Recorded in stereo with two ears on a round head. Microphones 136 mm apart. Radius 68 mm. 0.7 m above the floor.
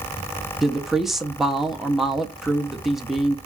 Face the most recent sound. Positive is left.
turn(degrees=0)  # may be behind; listen again after turning